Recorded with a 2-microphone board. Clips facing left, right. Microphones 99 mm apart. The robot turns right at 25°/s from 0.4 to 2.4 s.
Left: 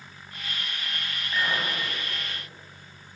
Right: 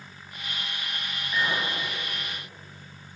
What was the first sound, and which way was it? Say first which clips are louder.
A clink: even; 10° left (ahead or behind).